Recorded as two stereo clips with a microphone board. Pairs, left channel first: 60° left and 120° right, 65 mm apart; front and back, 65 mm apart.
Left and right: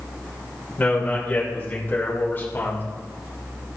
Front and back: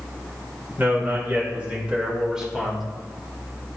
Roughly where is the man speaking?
Behind left.